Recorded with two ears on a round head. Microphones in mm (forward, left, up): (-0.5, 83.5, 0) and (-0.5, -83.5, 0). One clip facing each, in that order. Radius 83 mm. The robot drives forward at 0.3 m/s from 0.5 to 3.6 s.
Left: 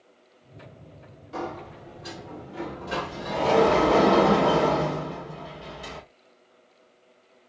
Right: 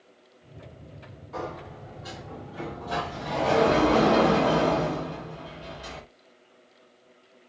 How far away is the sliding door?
About 1.1 m.